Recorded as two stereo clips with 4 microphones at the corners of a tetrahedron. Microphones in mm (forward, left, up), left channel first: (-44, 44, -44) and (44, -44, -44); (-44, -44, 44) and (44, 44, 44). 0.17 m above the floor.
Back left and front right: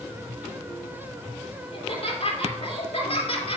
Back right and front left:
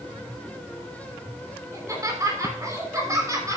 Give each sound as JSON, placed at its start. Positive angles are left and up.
{"t": 1.7, "sound": "laughter", "azimuth_deg": 105, "distance_m": 3.5}